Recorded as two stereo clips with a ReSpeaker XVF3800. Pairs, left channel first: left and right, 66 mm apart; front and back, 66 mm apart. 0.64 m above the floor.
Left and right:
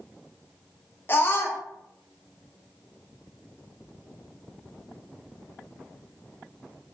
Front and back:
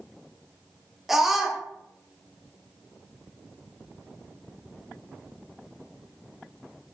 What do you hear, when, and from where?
1.1 s a scream: 95° left, 0.6 m